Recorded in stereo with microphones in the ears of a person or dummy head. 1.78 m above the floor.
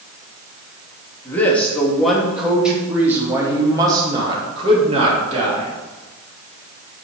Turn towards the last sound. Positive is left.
turn(degrees=-40)  # may be behind; listen again after turning